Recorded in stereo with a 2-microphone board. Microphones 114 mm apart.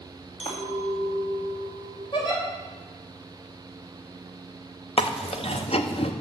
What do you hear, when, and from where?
0.4 s a clink: 60° left (ahead or behind), 2.5 m
2.1 s a giggle: 40° left (ahead or behind), 4 m
5.0 s chewing: 60° left (ahead or behind), 0.7 m